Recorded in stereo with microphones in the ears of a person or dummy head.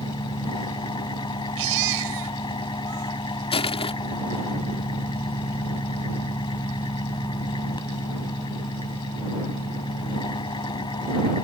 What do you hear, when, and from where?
0.0 s an engine running: 20° left (ahead or behind)
1.6 s a baby crying: 80° right
3.5 s crushing: 30° left (ahead or behind)